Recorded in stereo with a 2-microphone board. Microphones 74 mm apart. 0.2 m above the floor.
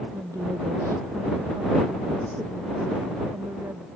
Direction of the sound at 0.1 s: 50° right (ahead or behind).